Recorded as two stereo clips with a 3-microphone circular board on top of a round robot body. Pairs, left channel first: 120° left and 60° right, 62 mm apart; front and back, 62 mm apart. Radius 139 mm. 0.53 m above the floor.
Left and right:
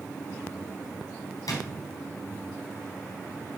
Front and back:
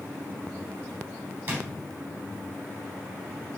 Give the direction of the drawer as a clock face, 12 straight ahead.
8 o'clock.